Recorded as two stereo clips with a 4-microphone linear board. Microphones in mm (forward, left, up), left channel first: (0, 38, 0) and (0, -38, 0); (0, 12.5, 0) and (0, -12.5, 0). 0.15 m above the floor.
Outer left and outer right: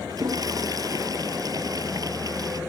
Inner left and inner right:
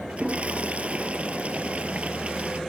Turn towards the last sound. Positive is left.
turn(degrees=-55)  # may be behind; listen again after turning